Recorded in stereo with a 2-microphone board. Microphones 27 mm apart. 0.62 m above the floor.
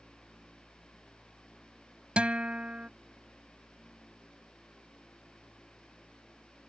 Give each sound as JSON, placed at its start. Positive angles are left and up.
{"t": 2.2, "sound": "a guitar", "side_deg": -45}